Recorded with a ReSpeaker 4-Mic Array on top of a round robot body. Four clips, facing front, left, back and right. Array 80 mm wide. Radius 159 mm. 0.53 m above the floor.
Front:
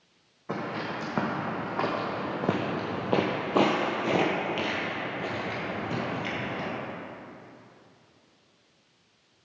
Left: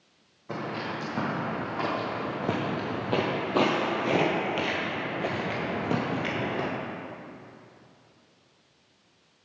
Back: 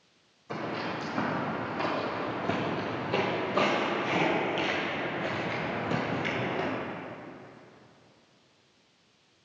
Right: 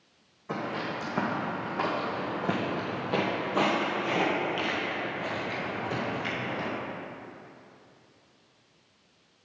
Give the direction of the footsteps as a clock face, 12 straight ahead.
12 o'clock.